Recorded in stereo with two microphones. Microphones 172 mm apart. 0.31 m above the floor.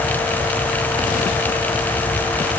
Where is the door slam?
I don't hear a door slam.